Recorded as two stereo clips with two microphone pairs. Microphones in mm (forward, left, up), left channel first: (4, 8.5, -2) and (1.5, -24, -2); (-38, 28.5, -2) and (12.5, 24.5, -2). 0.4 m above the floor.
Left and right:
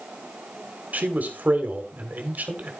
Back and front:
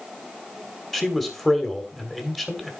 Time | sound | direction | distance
0.9 | a man speaking | 105° right | 2 m